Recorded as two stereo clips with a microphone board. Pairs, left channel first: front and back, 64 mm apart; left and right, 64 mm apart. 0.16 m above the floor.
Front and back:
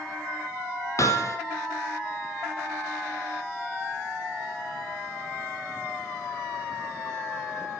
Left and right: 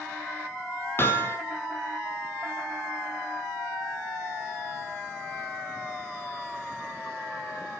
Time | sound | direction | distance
1.0 | hammering | 40° left | 5 m